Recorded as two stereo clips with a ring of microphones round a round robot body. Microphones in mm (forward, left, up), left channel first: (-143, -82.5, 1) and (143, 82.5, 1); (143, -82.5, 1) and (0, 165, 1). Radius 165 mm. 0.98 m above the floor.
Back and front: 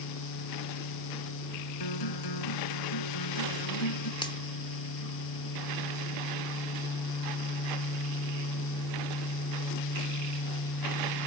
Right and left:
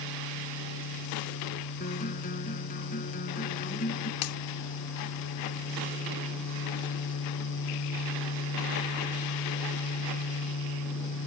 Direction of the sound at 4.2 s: 75° right.